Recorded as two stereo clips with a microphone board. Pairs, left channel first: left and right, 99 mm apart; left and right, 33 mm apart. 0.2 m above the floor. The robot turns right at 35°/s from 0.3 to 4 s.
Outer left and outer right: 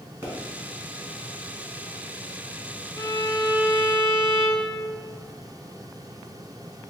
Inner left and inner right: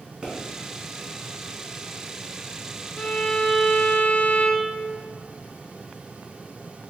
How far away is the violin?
About 0.5 m.